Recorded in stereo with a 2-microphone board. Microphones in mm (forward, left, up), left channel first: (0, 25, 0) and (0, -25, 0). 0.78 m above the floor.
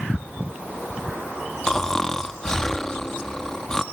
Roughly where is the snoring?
Centre.